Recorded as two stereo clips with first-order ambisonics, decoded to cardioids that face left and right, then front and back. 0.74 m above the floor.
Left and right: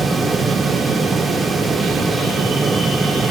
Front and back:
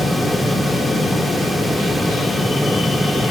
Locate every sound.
Only background noise.